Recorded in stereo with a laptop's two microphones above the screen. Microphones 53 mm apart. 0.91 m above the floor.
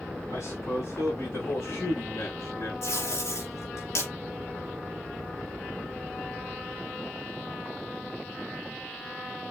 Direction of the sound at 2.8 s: 70° left (ahead or behind).